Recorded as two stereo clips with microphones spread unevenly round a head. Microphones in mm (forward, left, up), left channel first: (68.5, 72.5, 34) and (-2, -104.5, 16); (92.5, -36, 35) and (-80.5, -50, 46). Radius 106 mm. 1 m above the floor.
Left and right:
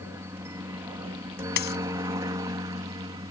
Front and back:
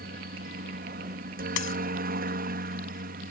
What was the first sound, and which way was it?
A helicopter, 175° left.